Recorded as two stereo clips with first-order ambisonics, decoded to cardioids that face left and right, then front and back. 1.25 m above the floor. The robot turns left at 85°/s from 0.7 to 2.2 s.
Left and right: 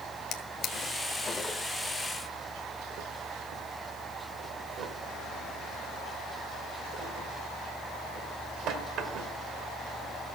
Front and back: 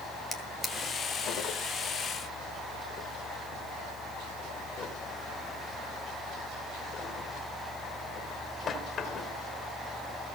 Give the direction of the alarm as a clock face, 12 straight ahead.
I don't hear an alarm.